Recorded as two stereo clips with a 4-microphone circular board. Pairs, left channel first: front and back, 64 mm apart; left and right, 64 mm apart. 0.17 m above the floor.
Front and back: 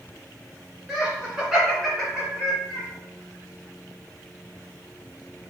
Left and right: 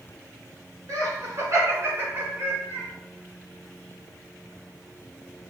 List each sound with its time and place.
0.9 s laughter: 110° right, 1.7 m; by 2.9 s 75° right, 1.1 m